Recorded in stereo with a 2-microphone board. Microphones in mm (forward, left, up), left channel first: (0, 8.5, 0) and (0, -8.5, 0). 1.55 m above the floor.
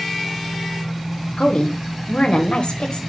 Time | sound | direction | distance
1.4 | a woman speaking | 65° left (ahead or behind) | 0.7 m